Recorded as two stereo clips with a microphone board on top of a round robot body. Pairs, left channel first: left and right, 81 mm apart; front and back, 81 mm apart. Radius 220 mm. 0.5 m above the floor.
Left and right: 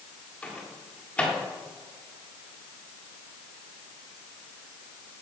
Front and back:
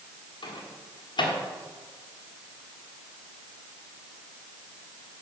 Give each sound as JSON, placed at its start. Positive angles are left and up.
{"t": 0.4, "sound": "a microwave", "azimuth_deg": 15, "distance_m": 1.5}